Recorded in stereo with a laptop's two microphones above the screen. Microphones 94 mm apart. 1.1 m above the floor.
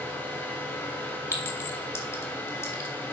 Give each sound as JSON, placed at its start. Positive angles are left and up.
{"t": 0.0, "sound": "a fan", "side_deg": 25, "distance_m": 3.0}
{"t": 1.3, "sound": "a clink", "side_deg": 30, "distance_m": 2.5}